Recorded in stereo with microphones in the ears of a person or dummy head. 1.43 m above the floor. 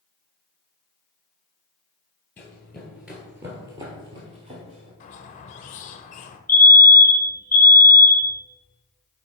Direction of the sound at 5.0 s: 35° left (ahead or behind).